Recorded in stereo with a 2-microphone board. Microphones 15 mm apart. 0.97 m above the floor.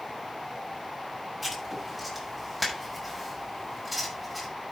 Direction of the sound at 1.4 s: 5° left (ahead or behind).